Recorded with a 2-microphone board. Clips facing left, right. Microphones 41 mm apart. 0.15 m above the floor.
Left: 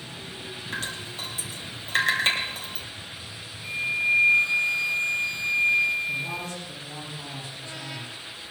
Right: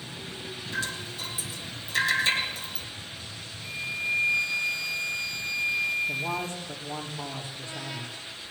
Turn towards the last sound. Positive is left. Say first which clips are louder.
# even
turn(degrees=-40)  # may be behind; listen again after turning